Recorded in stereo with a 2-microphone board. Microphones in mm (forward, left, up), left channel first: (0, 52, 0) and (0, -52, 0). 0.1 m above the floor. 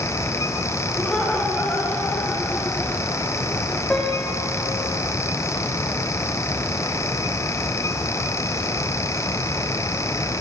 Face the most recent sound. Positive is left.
turn(degrees=10)  # may be behind; listen again after turning